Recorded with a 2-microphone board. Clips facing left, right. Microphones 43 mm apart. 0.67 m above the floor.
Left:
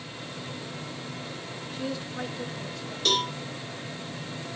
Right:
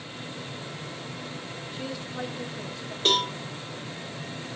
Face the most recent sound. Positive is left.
turn(degrees=-35)  # may be behind; listen again after turning